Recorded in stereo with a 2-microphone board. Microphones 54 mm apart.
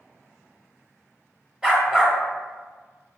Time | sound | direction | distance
1.6 | a dog barking | 10° right (ahead or behind) | 0.7 m